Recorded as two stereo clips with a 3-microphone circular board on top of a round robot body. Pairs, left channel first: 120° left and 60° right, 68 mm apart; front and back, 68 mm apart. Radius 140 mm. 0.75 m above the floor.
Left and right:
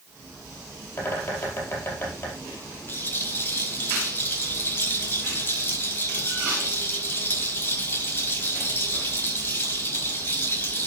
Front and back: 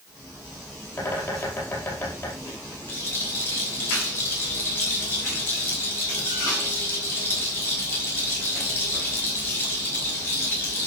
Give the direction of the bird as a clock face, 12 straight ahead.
10 o'clock.